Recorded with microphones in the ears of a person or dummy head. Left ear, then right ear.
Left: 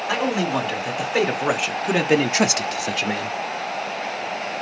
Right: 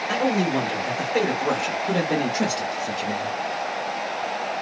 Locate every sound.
0.1 s a man speaking: 35° left (ahead or behind), 1.5 m; by 3.4 s 40° left (ahead or behind), 0.6 m